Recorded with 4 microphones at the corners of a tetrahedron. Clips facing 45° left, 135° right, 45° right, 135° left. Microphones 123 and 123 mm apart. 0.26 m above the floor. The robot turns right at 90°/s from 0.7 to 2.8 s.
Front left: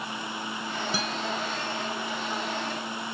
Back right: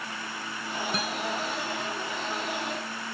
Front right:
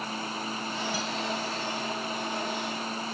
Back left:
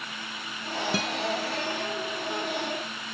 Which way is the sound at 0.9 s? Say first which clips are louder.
Even, back left 3 dB; 130° left.